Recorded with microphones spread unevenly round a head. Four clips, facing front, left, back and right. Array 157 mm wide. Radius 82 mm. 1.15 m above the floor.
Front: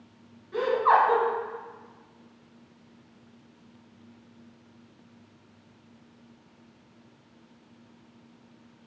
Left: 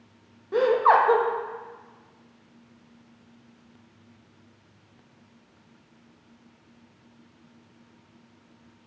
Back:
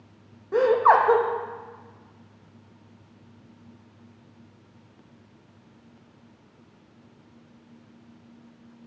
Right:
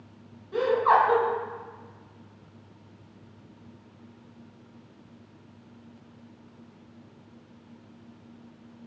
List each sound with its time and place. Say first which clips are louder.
0.5 s laughter: left 2 dB, back 4 dB; 150° left, 1.0 m